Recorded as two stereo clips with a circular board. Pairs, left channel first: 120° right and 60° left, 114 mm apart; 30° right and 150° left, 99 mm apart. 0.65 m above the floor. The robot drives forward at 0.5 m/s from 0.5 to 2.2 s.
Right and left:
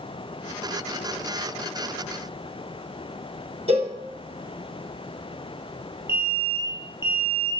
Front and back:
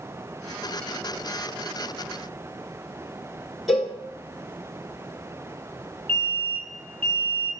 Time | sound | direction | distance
3.7 | a cowbell | 60° left | 0.6 m
6.1 | an alarm | 125° left | 1.0 m